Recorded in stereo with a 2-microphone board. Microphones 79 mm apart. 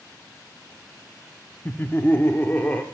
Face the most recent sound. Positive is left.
turn(degrees=25)  # may be behind; listen again after turning